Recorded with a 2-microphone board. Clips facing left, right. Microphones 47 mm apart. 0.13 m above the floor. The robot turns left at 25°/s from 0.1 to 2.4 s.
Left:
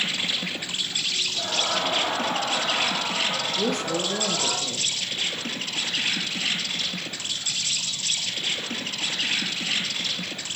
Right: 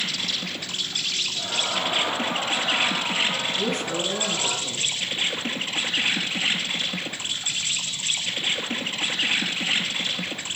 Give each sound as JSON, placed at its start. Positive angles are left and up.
{"t": 0.0, "sound": "an insect", "azimuth_deg": 30, "distance_m": 1.7}
{"t": 1.3, "sound": "laughter", "side_deg": 70, "distance_m": 5.0}
{"t": 3.6, "sound": "a woman speaking", "side_deg": 45, "distance_m": 3.0}